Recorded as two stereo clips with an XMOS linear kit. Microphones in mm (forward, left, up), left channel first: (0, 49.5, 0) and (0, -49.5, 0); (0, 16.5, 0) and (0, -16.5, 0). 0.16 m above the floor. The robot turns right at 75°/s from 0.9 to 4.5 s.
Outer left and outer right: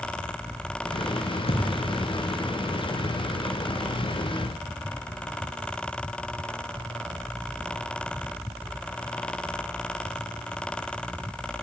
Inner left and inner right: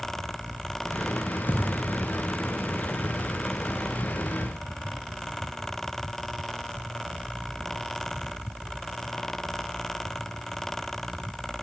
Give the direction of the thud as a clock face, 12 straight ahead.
8 o'clock.